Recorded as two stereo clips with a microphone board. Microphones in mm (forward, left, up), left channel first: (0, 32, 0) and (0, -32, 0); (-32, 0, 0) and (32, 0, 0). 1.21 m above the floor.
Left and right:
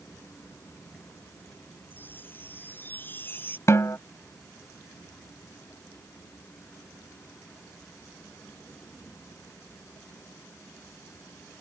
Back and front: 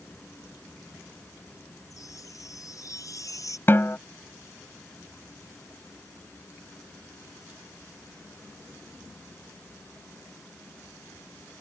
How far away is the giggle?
No giggle in this recording.